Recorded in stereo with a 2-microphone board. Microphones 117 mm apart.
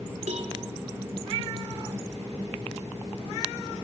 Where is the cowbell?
75° right (ahead or behind), 3 m.